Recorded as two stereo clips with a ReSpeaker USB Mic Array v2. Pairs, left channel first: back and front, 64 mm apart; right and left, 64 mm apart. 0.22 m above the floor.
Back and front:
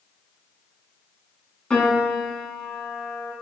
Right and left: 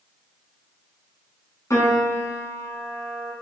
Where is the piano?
105° right, 2 m.